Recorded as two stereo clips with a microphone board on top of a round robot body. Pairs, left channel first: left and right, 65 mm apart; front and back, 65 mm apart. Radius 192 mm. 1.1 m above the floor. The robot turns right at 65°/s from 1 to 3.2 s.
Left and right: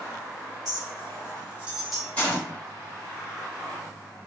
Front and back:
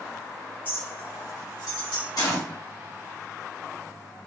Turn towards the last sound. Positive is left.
turn(degrees=90)